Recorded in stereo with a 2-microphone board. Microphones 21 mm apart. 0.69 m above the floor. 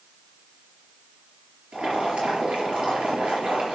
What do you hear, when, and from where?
1.7 s boiling: 60° right (ahead or behind), 4.5 m